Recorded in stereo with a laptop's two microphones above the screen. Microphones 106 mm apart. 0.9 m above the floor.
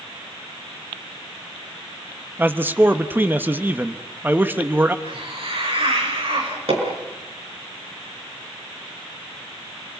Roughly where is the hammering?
Right.